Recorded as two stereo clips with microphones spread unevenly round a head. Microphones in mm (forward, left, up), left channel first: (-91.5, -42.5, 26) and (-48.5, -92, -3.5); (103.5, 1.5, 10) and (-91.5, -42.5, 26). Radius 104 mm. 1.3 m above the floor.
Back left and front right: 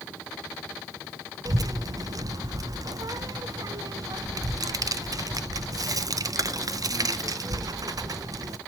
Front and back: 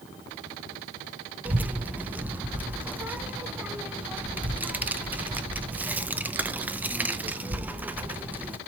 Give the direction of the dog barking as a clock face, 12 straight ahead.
No dog barking in this recording.